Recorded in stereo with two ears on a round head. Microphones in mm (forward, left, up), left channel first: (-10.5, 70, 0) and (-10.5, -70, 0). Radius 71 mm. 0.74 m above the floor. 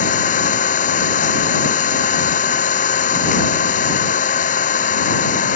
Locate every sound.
0.0 s an engine running: 55° left (ahead or behind)